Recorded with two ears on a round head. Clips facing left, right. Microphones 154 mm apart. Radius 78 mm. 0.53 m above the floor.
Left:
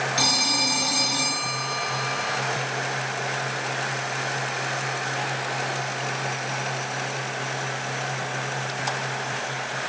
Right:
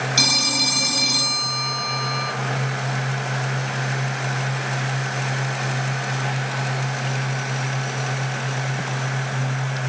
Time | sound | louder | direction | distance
0.2 | a phone ringing | right 1 dB | 70° right (ahead or behind) | 2.5 m